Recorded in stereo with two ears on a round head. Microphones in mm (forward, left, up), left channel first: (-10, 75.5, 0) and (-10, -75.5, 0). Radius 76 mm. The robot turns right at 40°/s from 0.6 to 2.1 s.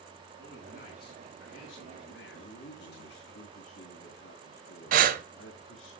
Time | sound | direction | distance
0.4 | a man speaking | 45° left | 8.5 m
2.3 | a man speaking | 80° left | 4 m
4.9 | breathing | 55° right (ahead or behind) | 1.1 m